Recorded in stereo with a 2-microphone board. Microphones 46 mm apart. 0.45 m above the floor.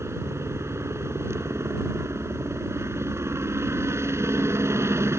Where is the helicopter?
75° right (ahead or behind).